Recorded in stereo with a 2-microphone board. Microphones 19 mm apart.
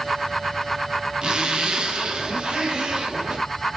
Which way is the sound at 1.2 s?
45° right (ahead or behind).